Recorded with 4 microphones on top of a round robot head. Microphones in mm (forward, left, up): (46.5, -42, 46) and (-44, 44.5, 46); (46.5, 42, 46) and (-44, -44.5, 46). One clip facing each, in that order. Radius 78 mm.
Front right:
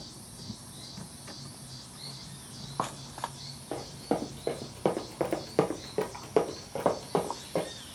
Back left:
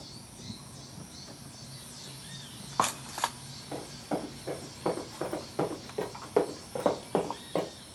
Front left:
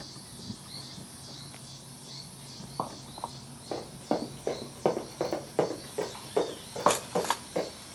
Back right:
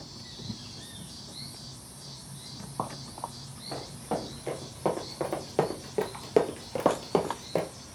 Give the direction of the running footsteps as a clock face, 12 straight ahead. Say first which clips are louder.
Front right 3 dB, front left 2 dB; 12 o'clock.